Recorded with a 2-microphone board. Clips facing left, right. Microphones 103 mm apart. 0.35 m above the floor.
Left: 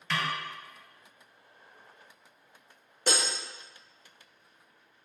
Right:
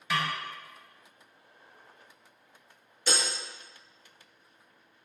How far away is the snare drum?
About 0.7 m.